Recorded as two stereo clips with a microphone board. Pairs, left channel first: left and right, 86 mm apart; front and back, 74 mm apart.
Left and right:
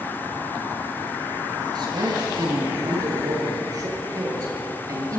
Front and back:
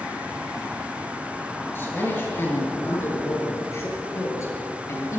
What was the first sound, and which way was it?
A man speaking, 60° right.